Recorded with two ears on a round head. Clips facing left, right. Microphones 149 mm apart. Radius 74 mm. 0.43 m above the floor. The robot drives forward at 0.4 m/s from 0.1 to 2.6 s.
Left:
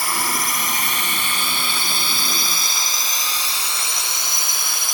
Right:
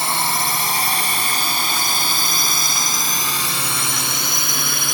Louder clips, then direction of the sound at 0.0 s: Right 2 dB; 20° right (ahead or behind).